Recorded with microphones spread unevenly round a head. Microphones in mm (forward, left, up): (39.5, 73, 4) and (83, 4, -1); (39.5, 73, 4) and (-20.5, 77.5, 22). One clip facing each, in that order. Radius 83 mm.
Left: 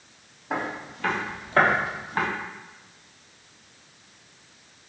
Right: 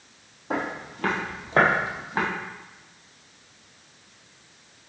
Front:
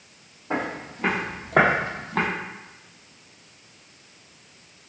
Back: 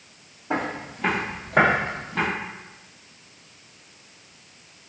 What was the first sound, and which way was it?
Footsteps, 105° right.